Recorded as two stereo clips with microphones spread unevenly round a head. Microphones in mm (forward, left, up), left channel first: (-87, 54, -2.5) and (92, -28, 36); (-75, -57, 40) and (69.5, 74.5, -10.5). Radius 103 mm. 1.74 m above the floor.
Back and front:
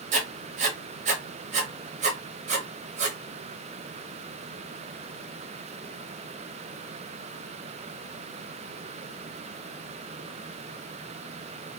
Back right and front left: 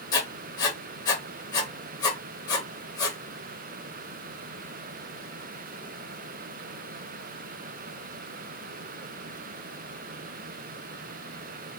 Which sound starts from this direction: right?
Writing, at 0.1 s.